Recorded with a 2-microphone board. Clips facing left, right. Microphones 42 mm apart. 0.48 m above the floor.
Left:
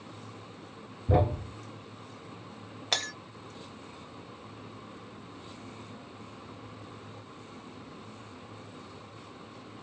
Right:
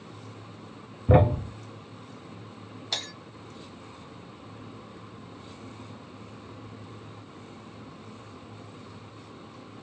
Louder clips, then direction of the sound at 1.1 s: Right 6 dB; 45° right (ahead or behind).